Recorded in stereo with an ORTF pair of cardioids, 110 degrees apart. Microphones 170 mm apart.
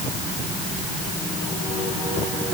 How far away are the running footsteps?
I don't hear running footsteps.